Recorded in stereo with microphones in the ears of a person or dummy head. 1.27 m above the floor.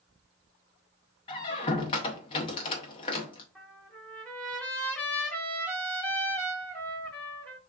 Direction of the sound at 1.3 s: 30° left (ahead or behind).